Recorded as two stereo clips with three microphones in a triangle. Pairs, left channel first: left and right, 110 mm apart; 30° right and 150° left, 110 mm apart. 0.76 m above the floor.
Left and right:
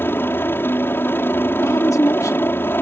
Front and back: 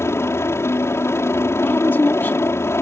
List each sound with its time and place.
0.0 s a helicopter: 30° left
1.6 s a woman speaking: 35° left